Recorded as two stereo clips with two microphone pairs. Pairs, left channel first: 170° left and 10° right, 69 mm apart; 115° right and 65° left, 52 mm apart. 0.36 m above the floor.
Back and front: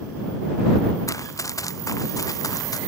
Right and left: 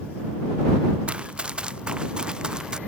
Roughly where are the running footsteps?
Behind left.